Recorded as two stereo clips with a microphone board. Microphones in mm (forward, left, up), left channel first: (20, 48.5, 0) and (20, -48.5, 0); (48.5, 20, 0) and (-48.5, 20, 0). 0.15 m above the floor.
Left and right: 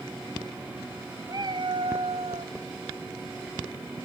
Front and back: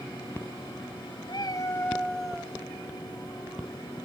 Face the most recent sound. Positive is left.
turn(degrees=-100)